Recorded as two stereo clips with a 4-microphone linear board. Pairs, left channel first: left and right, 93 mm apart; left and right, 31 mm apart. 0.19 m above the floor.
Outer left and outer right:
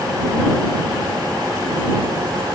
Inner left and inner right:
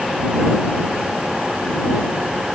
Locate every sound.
Only background noise.